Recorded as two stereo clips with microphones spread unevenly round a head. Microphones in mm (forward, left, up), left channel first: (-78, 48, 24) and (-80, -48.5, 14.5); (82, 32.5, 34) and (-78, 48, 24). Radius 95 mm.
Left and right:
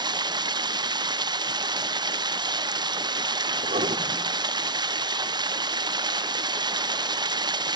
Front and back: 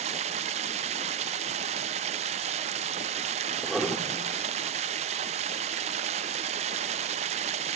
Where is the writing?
95° right, 1.9 m.